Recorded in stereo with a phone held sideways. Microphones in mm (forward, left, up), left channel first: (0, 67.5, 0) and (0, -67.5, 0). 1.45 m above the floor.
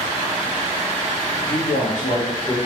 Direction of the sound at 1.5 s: 75° left (ahead or behind).